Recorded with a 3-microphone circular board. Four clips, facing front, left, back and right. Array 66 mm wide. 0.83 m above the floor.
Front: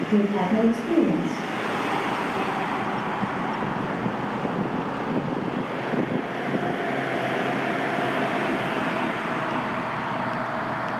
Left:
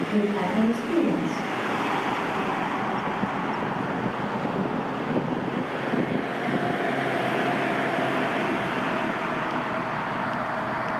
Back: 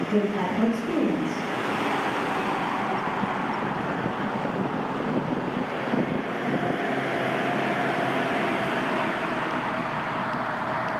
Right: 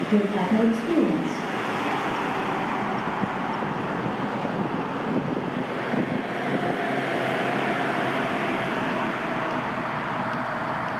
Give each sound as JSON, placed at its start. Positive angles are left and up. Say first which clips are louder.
{"t": 0.1, "sound": "a woman speaking", "louder": "right 3 dB, front 4 dB", "azimuth_deg": -60, "distance_m": 0.7}